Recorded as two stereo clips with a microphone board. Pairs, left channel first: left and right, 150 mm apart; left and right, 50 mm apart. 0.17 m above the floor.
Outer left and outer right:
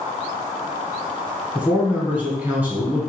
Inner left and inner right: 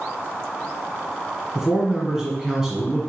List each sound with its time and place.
1.6 s a man speaking: 10° right (ahead or behind), 1.2 m